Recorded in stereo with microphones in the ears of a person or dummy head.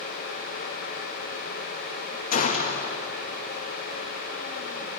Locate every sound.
2.3 s a gunshot: 50° left (ahead or behind), 2 m